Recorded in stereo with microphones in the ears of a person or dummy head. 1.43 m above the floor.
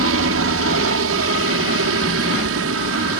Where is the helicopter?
70° right (ahead or behind).